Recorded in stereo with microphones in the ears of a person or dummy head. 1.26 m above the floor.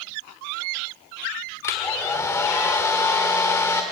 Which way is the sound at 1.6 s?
15° left (ahead or behind).